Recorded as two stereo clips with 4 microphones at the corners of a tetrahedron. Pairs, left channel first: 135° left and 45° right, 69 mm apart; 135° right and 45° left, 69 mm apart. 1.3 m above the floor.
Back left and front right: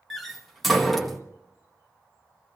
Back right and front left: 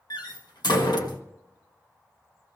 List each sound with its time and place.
0.1 s a door slam: 135° right, 1.3 m